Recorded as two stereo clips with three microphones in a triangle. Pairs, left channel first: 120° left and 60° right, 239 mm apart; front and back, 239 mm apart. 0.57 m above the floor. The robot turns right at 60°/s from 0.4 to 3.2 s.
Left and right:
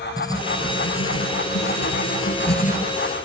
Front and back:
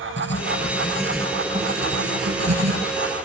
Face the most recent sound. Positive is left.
turn(degrees=-150)